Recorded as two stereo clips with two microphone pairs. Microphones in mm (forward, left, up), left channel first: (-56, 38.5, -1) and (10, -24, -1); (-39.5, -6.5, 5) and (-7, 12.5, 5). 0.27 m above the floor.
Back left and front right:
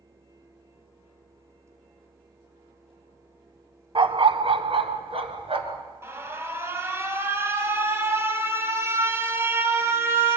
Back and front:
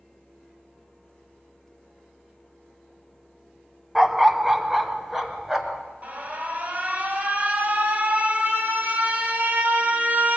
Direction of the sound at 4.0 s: 55° right.